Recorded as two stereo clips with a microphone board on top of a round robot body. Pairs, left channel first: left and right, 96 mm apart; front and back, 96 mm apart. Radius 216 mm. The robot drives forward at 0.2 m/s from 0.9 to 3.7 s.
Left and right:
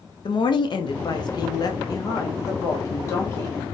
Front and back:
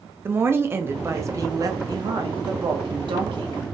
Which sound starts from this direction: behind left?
A woman speaking, at 0.2 s.